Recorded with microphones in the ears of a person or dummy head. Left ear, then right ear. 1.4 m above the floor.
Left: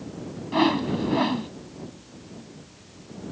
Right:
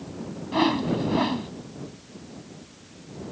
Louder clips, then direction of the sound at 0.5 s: Left 1 dB; centre (ahead or behind).